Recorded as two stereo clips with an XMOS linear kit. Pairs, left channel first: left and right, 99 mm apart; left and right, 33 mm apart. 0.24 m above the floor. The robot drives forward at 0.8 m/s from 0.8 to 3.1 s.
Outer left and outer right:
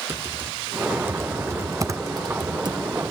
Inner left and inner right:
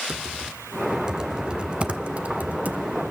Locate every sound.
0.1 s typing on a keyboard: 20° right (ahead or behind), 1.8 m; by 2.9 s 45° right (ahead or behind), 0.9 m